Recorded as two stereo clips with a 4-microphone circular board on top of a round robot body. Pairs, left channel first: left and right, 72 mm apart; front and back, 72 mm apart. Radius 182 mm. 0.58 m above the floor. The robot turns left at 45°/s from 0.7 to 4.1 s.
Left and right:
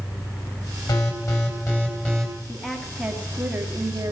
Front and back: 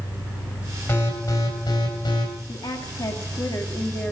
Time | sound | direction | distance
0.9 | an alarm | 65° left | 4 m
2.5 | a woman speaking | 10° left | 2 m